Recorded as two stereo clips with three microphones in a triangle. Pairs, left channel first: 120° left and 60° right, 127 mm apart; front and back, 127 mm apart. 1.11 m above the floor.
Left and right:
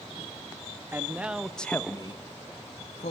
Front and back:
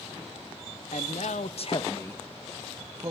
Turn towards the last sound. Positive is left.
turn(degrees=125)